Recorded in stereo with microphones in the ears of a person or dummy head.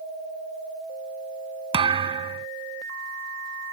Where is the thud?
25° right (ahead or behind).